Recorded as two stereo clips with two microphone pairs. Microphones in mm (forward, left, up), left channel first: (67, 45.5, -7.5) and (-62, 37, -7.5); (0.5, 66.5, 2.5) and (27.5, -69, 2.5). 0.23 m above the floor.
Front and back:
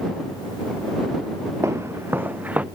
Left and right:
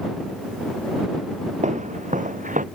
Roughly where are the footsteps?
Right.